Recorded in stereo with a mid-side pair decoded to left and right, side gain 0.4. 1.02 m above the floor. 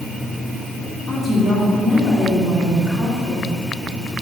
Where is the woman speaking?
Straight ahead, 2.5 m.